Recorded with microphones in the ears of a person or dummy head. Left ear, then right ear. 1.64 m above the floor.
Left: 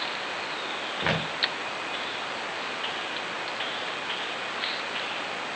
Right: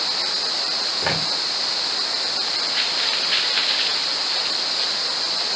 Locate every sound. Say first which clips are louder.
1.0 s footsteps: right 1 dB; 5° left (ahead or behind), 7 m